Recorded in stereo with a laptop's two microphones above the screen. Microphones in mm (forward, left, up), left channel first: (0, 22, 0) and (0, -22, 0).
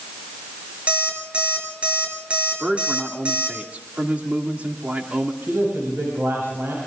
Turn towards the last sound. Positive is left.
turn(degrees=-60)  # may be behind; listen again after turning